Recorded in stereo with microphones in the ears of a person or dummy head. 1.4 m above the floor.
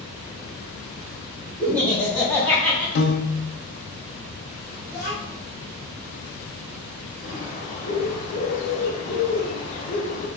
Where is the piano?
65° left (ahead or behind), 0.8 m.